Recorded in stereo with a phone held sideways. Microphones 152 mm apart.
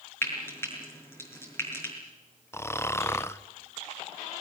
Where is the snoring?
20° left (ahead or behind), 0.8 m.